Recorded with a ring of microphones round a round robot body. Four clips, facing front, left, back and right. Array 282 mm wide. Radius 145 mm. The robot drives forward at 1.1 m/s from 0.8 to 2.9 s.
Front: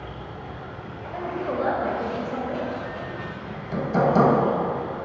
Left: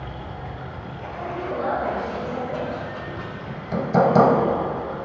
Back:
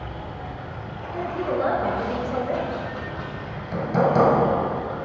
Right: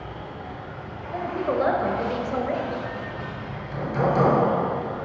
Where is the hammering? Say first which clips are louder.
Left 8 dB, front 1 dB; 90° left, 1.2 m.